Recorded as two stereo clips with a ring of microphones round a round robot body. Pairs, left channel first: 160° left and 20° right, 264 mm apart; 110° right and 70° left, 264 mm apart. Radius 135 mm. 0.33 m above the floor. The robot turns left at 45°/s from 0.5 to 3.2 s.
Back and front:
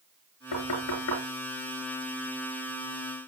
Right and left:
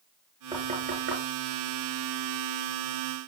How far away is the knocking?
About 3.5 m.